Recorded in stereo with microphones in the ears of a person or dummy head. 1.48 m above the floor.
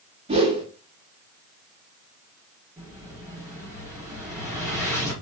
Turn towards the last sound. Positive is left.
turn(degrees=-10)  # may be behind; listen again after turning